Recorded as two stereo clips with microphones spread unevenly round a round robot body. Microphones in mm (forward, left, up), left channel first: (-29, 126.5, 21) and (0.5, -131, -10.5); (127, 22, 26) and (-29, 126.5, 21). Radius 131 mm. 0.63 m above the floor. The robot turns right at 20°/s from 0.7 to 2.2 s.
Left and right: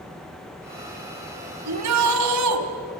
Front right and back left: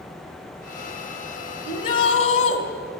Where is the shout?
110° right, 3.5 m; by 2.6 s 100° right, 3.5 m.